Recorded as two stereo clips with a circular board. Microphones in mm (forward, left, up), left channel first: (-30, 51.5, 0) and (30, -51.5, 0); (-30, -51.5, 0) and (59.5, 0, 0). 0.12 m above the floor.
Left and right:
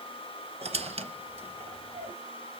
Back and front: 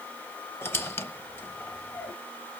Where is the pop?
I don't hear a pop.